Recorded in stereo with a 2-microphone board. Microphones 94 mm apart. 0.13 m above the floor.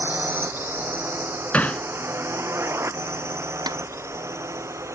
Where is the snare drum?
45° right (ahead or behind).